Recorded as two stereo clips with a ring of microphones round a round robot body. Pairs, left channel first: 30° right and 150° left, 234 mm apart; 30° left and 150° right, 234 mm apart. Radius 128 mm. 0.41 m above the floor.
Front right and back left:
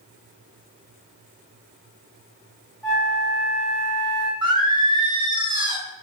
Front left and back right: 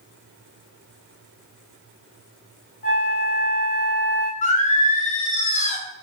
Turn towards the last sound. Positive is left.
turn(degrees=85)